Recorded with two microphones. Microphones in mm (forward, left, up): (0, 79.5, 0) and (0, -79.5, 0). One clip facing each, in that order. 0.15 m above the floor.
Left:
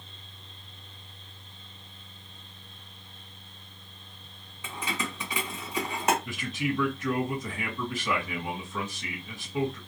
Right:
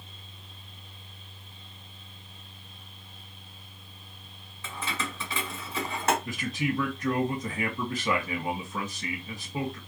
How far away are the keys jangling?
About 0.9 m.